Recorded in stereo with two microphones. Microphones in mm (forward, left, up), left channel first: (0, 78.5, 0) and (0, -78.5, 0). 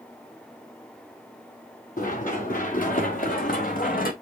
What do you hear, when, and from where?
2.0 s running footsteps: 60° left (ahead or behind), 3 m; by 4.1 s 65° left (ahead or behind), 1.2 m